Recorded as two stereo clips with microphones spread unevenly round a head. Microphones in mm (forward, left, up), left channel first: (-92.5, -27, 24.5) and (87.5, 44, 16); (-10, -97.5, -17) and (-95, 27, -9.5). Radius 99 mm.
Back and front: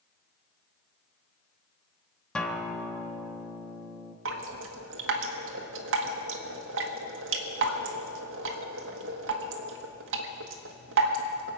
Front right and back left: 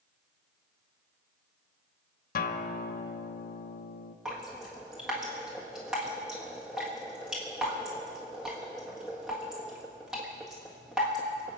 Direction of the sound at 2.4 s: 75° right.